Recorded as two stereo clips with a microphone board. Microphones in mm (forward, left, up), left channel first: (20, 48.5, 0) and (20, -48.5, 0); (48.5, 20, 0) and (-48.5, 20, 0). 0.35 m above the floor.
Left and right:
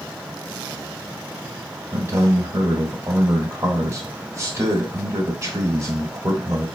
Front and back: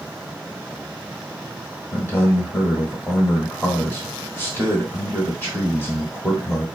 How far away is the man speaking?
About 1.1 m.